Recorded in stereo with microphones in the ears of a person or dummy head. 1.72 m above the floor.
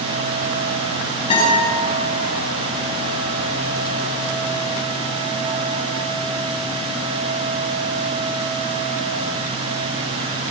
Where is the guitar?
25° left (ahead or behind), 9.5 m.